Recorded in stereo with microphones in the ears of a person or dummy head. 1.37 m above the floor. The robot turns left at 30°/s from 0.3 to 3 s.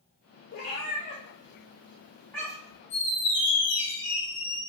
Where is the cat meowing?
60° left (ahead or behind), 1.8 m; by 2.8 s 5° right (ahead or behind), 1.8 m.